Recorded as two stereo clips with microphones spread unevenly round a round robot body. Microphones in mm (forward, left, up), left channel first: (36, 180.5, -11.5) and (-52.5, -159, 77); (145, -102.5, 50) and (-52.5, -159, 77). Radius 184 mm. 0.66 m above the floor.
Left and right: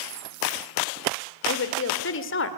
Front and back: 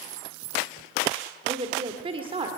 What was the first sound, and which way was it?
A woman speaking, 125° left.